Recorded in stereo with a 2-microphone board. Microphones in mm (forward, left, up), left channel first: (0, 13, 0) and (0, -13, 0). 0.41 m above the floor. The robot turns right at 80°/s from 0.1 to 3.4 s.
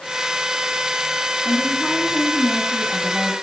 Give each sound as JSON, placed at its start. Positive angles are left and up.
{"t": 1.4, "sound": "a woman speaking", "azimuth_deg": 80, "distance_m": 4.0}